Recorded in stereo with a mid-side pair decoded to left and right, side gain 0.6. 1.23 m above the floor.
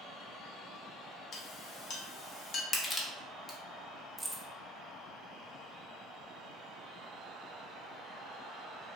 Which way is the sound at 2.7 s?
25° left.